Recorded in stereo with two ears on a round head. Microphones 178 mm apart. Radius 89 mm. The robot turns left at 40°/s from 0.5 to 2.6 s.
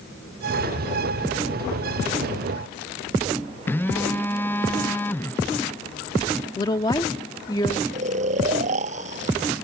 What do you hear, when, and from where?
3.7 s a phone buzzing: 10° left (ahead or behind)
6.6 s a woman speaking: 20° left (ahead or behind)
7.9 s snoring: 40° right (ahead or behind)